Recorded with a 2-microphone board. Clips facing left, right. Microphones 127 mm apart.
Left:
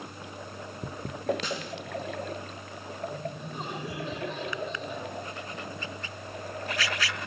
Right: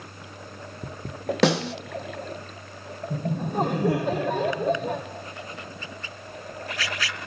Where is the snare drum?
80° right, 1.3 m.